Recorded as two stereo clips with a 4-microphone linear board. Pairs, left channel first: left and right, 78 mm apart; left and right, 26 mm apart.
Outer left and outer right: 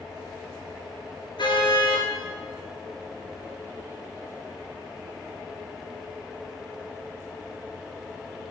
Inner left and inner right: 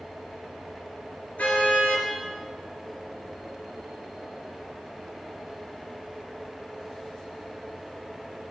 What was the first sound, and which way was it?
A car horn, 85° left.